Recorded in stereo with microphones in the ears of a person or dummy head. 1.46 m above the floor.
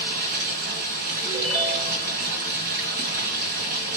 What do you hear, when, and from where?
0.0 s running water: 50° right (ahead or behind), 4 m
1.2 s a ringtone: 25° right (ahead or behind), 5.5 m